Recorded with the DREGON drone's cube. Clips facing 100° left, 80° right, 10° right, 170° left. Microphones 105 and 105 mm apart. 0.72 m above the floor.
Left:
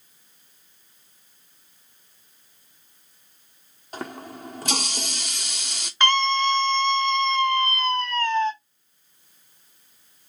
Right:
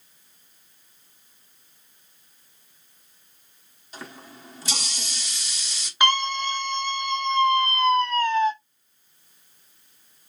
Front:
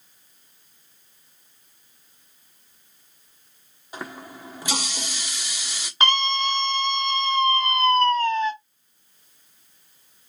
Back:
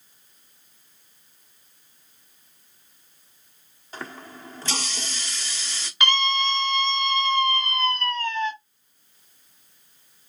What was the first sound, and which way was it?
A running tap, 65° left.